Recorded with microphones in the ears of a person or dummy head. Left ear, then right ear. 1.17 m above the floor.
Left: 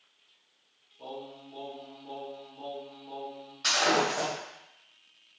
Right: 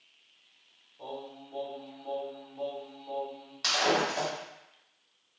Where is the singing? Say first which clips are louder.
Even; 60° right (ahead or behind), 1.3 m.